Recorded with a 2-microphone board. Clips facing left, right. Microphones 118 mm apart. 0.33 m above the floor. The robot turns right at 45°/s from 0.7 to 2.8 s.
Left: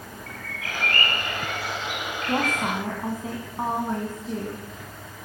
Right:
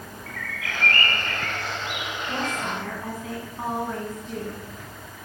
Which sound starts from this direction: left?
A woman speaking, at 2.3 s.